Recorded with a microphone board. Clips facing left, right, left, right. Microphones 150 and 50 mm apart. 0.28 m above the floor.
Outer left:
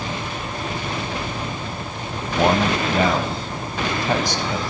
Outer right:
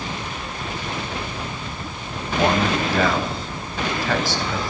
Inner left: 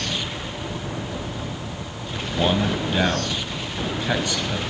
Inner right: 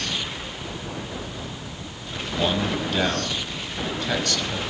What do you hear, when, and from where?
2.2 s a man speaking: 20° left (ahead or behind), 1.4 m